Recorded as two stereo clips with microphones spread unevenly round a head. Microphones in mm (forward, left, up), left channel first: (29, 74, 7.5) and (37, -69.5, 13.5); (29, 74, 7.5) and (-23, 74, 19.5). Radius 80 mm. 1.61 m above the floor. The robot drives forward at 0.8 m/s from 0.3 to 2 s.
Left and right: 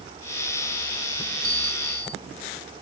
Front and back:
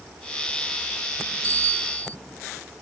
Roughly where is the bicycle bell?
Behind.